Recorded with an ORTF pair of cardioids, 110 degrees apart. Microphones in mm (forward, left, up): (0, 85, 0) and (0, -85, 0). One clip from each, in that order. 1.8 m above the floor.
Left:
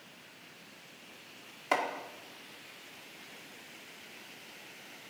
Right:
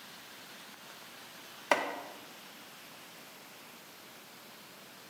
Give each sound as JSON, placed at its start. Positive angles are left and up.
{"t": 1.7, "sound": "chopping", "azimuth_deg": -30, "distance_m": 2.0}